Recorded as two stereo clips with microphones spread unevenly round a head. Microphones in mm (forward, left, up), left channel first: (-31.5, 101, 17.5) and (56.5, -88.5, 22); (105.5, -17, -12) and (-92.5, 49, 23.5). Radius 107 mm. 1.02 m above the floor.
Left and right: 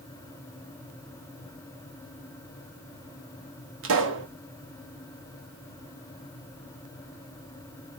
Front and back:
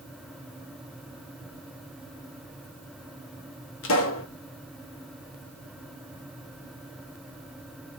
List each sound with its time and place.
3.8 s a pop: 40° right, 1.1 m